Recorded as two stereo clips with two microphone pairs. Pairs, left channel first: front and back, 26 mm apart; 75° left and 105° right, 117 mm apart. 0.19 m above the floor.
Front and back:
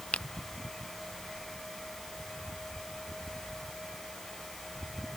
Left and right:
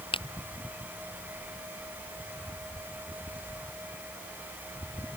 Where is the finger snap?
35° left.